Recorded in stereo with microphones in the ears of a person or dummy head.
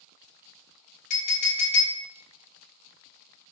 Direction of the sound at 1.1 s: 45° left (ahead or behind).